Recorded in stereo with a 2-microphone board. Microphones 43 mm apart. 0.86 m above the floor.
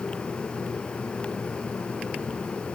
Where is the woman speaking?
No woman speaking in this recording.